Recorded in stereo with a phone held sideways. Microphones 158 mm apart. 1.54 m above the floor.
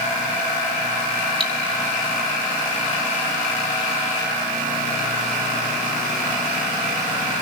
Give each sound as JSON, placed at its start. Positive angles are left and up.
{"t": 1.4, "sound": "cutlery clinking", "side_deg": -35, "distance_m": 1.9}